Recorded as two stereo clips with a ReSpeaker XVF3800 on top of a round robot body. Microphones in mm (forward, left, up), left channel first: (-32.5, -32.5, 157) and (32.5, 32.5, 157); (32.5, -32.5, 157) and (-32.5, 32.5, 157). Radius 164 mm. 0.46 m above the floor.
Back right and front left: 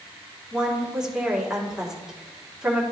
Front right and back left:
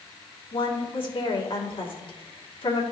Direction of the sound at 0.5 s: 40° right.